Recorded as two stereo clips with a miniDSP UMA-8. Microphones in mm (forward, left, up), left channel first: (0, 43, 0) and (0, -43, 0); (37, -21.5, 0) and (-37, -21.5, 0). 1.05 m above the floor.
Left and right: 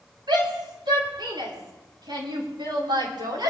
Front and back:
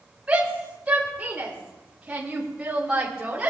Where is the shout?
105° right, 8 m.